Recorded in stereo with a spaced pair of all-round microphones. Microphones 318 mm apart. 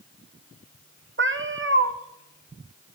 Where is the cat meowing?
40° right (ahead or behind), 0.7 m.